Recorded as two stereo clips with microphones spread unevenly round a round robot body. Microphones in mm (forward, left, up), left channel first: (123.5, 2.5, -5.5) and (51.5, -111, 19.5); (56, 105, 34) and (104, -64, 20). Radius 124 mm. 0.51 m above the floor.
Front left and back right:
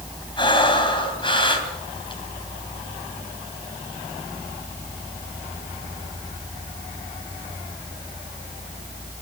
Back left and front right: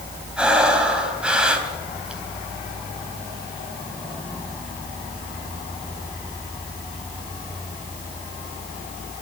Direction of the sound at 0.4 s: 10° left.